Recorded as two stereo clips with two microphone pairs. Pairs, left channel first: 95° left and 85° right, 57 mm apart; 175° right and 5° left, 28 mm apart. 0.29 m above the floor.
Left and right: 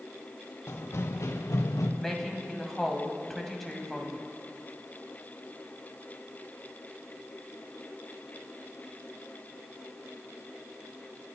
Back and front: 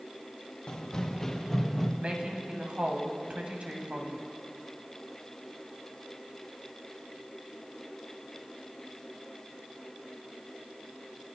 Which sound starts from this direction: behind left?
Running footsteps, at 0.7 s.